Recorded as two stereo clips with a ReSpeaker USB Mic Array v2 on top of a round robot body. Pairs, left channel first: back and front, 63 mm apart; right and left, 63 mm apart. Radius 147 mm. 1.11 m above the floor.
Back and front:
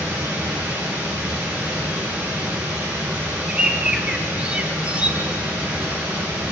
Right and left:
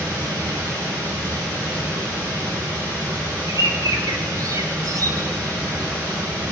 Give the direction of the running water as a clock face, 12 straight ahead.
10 o'clock.